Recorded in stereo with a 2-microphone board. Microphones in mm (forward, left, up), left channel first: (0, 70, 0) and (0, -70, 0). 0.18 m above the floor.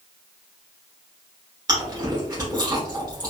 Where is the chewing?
25° right (ahead or behind), 1.5 m.